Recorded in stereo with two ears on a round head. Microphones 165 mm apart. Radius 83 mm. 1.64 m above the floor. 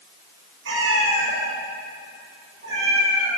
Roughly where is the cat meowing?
Right.